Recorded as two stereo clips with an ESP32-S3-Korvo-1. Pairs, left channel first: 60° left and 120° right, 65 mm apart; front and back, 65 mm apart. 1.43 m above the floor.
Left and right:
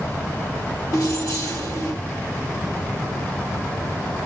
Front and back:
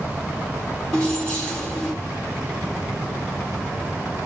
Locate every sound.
0.9 s keys jangling: 80° left, 3 m